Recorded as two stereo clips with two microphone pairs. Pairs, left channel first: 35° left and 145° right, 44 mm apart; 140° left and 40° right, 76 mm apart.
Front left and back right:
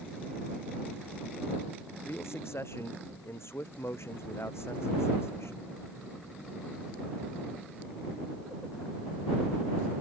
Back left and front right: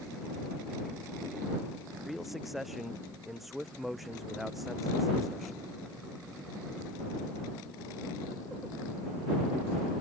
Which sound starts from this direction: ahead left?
A man speaking, at 2.1 s.